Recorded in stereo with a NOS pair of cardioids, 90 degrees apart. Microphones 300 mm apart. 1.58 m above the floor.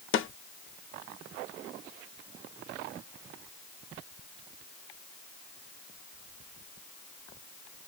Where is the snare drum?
45° left, 0.6 m.